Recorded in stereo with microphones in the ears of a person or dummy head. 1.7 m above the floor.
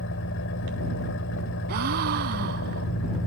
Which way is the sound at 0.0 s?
70° left (ahead or behind).